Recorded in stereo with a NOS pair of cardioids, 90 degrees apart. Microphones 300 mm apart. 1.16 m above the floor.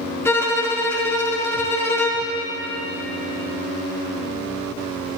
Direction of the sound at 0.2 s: 10° left.